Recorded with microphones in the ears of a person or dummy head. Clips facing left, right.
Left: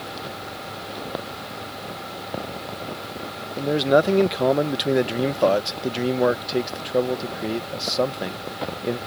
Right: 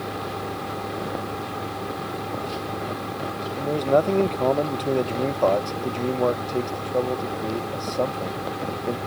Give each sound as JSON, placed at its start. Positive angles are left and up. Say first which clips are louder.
{"t": 0.0, "sound": "a fan", "louder": "right 4 dB", "side_deg": -85}
{"t": 3.6, "sound": "a man speaking", "louder": "left 2 dB", "side_deg": 25}